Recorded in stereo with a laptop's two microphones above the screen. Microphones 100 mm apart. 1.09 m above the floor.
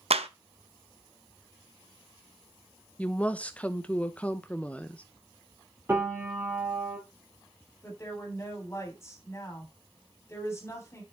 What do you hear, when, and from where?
0.1 s a clap: 90° right, 0.7 m
3.0 s a woman speaking: 15° left (ahead or behind), 0.7 m
5.9 s a piano: 20° right (ahead or behind), 4 m
7.8 s a woman speaking: 25° left (ahead or behind), 3 m